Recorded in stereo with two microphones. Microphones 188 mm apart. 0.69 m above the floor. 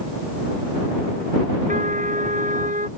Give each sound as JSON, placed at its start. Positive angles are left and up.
{"t": 1.7, "sound": "a trumpet", "side_deg": -45}